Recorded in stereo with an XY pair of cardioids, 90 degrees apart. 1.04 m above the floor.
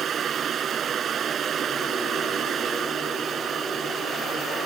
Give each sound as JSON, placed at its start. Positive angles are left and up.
{"t": 0.0, "sound": "a fan", "azimuth_deg": -60}